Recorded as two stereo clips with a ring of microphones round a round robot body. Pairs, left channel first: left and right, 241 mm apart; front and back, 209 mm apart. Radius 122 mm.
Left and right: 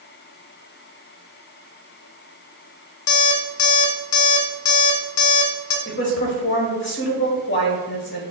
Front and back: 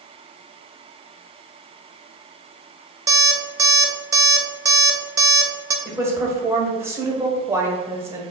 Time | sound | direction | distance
3.1 | an alarm clock | 105° left | 0.6 m
5.8 | a woman speaking | 105° left | 1.1 m